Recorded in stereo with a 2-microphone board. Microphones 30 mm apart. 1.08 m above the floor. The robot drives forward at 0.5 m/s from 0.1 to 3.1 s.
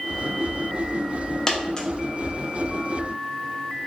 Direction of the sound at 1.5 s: 20° left (ahead or behind).